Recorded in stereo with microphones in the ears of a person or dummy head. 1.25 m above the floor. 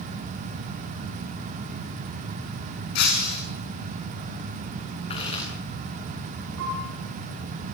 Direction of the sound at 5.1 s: 35° left (ahead or behind).